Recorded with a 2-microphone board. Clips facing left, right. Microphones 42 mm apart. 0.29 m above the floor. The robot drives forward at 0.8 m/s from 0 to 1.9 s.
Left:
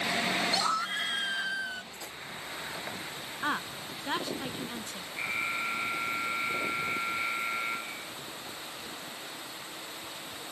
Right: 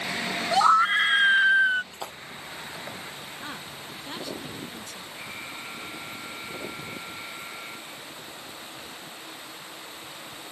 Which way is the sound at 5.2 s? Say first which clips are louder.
Left 9 dB; 35° left (ahead or behind).